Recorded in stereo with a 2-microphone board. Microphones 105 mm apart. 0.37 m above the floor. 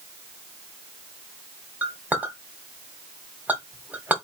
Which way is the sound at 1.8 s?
15° right (ahead or behind).